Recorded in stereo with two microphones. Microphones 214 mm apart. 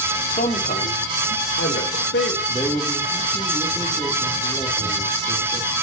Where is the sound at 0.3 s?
35° left (ahead or behind), 2.5 m; by 2.4 s 65° left (ahead or behind), 4 m.